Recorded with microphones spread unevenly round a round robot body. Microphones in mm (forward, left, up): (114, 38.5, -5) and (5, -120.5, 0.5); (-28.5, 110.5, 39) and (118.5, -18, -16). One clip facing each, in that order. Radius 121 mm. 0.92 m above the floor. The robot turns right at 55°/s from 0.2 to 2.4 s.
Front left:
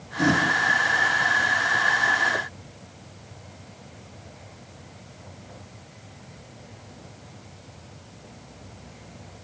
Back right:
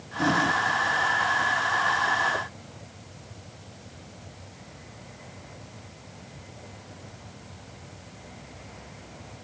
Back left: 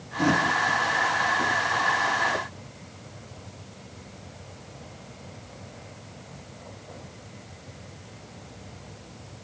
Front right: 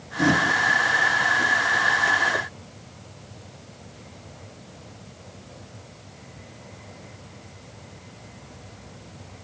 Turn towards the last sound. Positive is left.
No sound to turn to.